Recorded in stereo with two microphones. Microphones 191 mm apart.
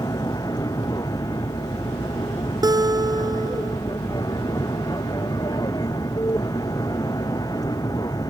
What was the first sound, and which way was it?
An aircraft, 20° left (ahead or behind).